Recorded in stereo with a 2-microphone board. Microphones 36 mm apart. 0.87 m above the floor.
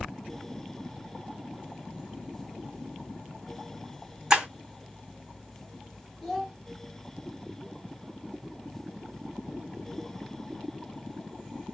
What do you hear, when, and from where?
4.3 s breaking glass: 15° right (ahead or behind), 3 m
6.2 s a child speaking: centre (ahead or behind), 1.9 m